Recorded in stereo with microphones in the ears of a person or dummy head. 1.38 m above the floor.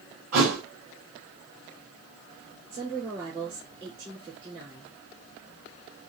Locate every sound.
0.3 s a thud: 50° right (ahead or behind), 5 m
2.7 s a woman speaking: 30° right (ahead or behind), 3.5 m